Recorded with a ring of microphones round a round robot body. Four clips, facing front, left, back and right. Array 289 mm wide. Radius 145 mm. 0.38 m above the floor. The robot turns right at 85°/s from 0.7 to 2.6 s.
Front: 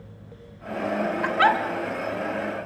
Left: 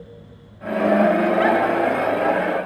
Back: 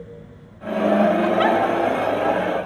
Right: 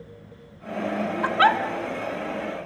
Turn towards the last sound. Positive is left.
turn(degrees=35)